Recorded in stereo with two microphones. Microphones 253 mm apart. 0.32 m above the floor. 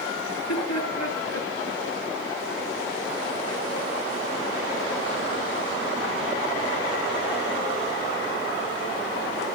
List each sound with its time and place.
0.3 s laughter: 75° left (ahead or behind), 7 m